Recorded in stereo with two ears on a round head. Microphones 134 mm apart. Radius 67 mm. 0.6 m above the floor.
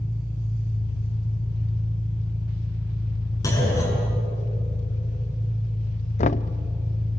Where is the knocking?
50° left (ahead or behind), 0.5 m.